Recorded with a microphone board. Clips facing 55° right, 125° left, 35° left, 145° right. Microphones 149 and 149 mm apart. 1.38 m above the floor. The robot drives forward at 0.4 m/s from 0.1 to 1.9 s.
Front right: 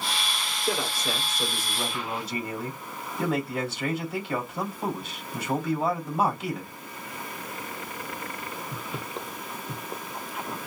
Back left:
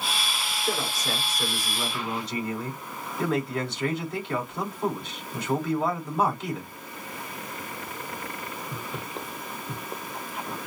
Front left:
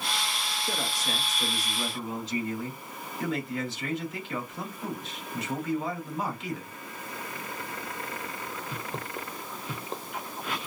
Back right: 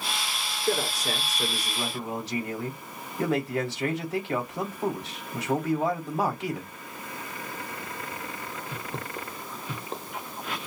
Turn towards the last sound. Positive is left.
turn(degrees=-140)